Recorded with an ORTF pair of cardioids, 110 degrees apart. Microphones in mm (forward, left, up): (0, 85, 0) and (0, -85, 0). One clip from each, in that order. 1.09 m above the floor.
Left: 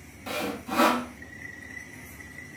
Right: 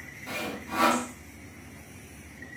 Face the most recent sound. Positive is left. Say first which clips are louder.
# left 3 dB
turn(degrees=70)